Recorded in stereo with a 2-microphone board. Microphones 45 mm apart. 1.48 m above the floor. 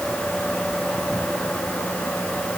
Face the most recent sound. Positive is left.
No sound to turn to.